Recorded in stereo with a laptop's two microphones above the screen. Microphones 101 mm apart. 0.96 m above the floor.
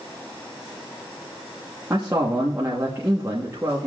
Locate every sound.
1.9 s a man speaking: 25° right (ahead or behind), 1.2 m